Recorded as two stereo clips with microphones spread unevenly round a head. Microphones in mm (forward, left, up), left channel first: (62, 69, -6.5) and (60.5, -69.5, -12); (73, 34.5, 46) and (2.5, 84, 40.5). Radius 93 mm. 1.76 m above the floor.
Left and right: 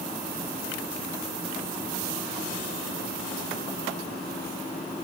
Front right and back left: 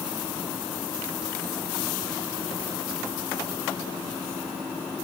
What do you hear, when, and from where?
Only background noise.